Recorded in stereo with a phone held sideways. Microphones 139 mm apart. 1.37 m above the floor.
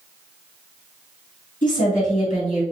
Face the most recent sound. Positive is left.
turn(degrees=75)  # may be behind; listen again after turning